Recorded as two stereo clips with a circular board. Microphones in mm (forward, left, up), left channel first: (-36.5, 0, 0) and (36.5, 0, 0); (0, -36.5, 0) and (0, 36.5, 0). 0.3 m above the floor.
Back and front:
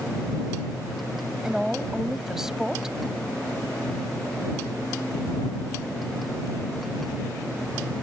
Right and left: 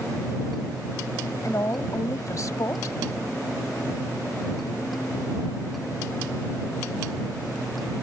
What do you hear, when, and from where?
1.4 s a woman speaking: 80° right